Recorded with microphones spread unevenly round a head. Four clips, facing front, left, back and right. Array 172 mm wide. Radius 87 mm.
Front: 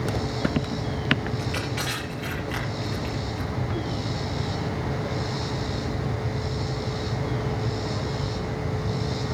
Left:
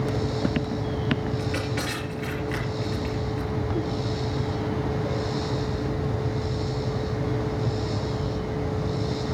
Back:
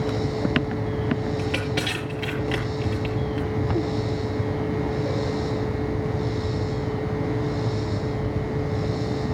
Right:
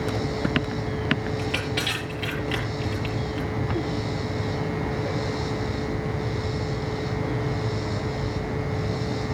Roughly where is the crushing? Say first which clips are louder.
Even, back 4 dB; behind.